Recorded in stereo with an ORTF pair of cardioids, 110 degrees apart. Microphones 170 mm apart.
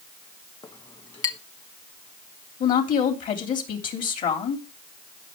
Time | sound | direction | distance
0.6 | a clink | 30° left | 1.4 m
2.6 | a woman speaking | 55° left | 3 m